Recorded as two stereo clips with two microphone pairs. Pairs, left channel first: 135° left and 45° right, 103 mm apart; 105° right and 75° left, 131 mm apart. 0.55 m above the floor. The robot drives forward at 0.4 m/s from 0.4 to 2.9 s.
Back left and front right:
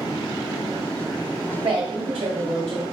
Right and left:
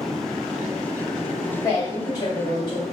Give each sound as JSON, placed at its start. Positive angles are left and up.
{"t": 1.6, "sound": "a woman speaking", "azimuth_deg": -45, "distance_m": 1.9}